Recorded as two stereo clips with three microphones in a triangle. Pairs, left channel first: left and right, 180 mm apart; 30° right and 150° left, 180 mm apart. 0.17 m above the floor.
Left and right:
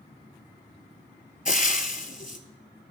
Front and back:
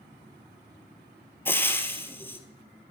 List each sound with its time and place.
1.4 s frying: 45° left, 0.8 m